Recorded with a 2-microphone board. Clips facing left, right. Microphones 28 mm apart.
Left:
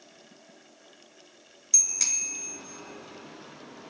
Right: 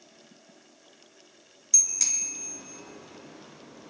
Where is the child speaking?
No child speaking in this recording.